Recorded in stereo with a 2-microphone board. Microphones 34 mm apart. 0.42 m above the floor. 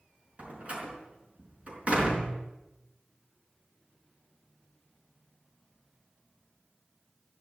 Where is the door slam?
40° right (ahead or behind), 4.5 m.